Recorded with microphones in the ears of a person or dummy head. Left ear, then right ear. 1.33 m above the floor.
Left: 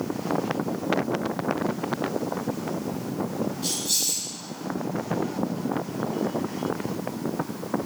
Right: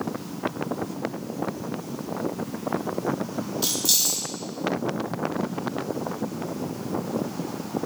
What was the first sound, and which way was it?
Keys jangling, 55° right (ahead or behind).